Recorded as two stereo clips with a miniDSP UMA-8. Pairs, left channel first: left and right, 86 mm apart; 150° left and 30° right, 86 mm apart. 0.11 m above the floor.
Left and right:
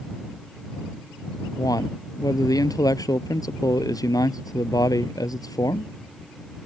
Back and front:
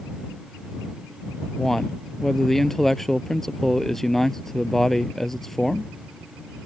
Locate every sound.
1.6 s a man speaking: 65° left